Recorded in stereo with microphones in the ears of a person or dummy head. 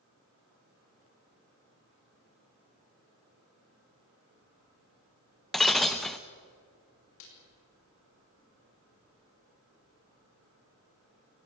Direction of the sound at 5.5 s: Centre (ahead or behind).